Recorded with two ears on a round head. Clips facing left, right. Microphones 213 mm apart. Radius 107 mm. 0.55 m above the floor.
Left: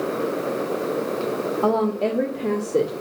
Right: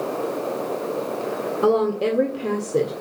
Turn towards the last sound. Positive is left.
turn(degrees=0)  # may be behind; listen again after turning